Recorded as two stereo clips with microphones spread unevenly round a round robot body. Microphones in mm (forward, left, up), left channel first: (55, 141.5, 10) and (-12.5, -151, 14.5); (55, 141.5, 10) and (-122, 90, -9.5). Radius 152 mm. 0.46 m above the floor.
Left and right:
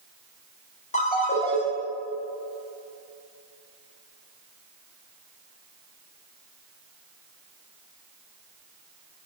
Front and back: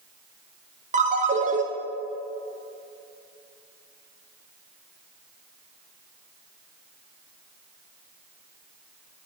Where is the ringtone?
145° left, 2.5 m.